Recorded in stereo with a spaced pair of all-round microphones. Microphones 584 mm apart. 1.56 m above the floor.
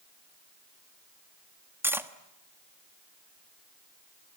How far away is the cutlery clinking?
About 1.2 m.